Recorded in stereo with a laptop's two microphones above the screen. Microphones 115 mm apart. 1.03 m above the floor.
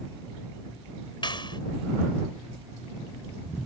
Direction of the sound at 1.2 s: 40° left (ahead or behind).